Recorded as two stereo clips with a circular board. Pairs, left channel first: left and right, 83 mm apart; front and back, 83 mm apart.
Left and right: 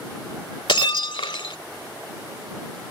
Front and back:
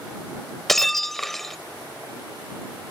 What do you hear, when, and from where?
0.7 s breaking glass: 85° left